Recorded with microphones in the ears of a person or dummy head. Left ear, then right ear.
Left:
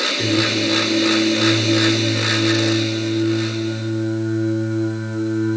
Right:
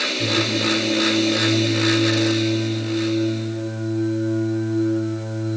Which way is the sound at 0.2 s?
50° left (ahead or behind).